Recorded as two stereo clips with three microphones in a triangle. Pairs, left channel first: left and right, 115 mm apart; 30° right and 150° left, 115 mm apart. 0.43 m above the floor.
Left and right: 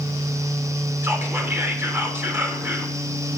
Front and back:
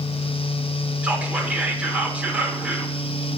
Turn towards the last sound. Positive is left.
turn(degrees=-140)